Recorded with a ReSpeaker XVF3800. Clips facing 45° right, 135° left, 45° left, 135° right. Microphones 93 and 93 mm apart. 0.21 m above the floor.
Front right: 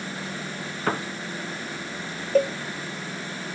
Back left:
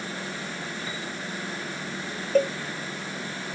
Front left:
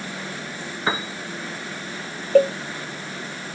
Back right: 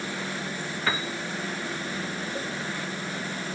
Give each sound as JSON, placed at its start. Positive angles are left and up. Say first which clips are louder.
{"t": 0.9, "sound": "a piano", "louder": "front right 8 dB, front left 4 dB", "azimuth_deg": -20}
{"t": 2.4, "sound": "a cowbell", "louder": "front right 1 dB, front left 24 dB", "azimuth_deg": 40}